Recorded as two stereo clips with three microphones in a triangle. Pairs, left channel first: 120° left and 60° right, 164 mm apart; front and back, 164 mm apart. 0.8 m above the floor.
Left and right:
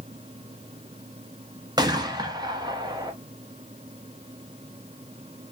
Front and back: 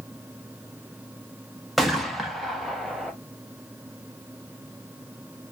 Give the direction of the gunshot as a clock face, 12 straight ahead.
3 o'clock.